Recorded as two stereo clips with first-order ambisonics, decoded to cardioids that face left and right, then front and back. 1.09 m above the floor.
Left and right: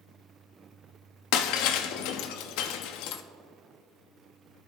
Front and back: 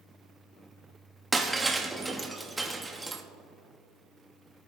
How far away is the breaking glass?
About 0.7 m.